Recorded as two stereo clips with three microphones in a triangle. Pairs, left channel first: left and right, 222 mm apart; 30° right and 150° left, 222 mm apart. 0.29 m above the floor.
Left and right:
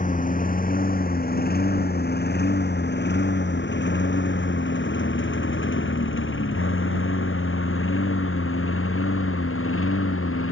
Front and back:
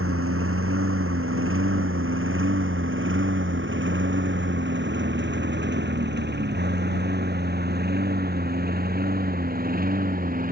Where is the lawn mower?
145° left; by 10.5 s 100° left.